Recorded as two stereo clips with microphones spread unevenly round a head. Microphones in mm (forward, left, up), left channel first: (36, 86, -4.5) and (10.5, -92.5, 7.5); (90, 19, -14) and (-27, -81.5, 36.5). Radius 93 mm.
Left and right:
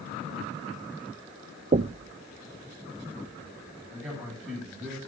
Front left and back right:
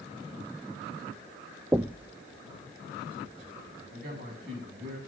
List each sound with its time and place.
1.7 s knocking: 100° right, 0.5 m
3.9 s a man speaking: 175° right, 9.5 m